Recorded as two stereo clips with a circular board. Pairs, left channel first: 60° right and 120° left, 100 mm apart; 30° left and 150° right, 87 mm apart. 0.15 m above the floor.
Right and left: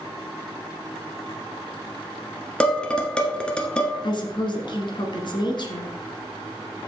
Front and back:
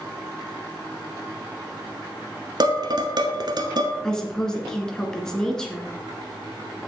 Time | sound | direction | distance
2.6 | dishes clattering | 135° right | 1.3 m
4.0 | a woman speaking | 50° right | 1.8 m